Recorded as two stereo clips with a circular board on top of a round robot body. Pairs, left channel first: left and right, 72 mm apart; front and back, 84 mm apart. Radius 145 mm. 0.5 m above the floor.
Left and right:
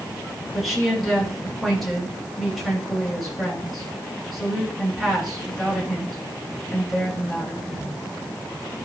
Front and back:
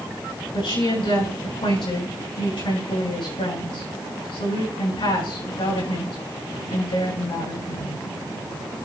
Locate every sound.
0.5 s a woman speaking: straight ahead, 8.5 m